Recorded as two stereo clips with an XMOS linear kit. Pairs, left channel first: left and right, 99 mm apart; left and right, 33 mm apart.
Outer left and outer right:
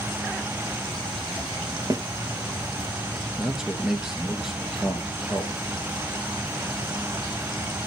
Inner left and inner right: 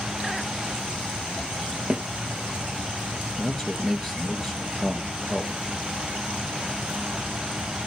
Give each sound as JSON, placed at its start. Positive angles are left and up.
{"t": 1.9, "sound": "a snare drum", "side_deg": -35, "distance_m": 1.0}
{"t": 3.4, "sound": "a man speaking", "side_deg": -5, "distance_m": 2.5}